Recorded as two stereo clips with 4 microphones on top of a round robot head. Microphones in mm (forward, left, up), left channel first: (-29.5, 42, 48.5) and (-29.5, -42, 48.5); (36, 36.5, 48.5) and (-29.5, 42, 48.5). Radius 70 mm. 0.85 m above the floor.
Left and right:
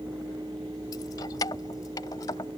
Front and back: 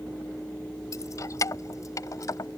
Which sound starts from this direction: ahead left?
Keys jangling, at 0.9 s.